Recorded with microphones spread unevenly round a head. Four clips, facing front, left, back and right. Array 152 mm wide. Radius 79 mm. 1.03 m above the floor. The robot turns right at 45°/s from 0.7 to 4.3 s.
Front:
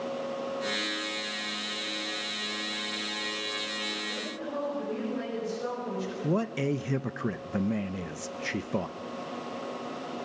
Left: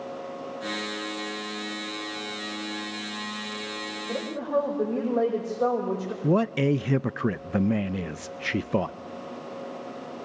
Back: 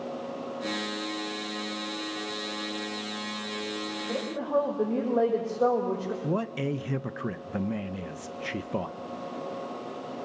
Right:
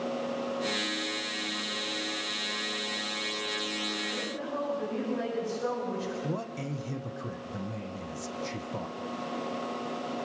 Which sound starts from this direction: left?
A man speaking, at 6.2 s.